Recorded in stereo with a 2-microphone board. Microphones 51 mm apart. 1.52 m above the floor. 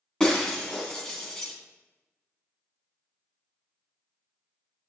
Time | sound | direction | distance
0.2 | breaking glass | 15° left (ahead or behind) | 3 m